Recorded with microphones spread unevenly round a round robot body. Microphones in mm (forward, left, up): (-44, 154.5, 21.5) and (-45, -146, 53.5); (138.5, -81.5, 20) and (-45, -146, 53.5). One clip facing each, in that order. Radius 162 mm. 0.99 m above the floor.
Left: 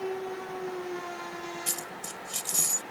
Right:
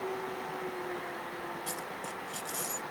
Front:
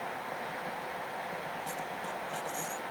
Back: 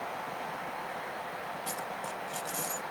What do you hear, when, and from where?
1.7 s a dropped coin: 135° left